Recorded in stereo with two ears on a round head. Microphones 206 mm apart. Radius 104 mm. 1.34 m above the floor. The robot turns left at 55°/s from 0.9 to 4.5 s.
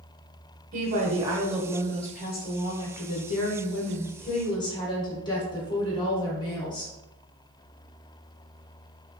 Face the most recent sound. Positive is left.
turn(degrees=20)